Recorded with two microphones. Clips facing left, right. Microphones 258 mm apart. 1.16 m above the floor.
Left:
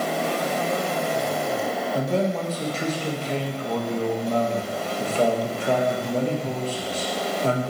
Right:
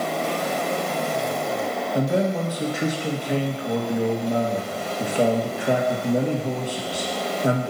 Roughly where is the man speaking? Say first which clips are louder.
Right 3 dB; centre.